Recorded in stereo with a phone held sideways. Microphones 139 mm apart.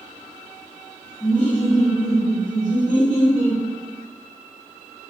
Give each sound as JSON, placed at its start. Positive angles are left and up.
{"t": 1.2, "sound": "laughter", "side_deg": 55, "distance_m": 1.5}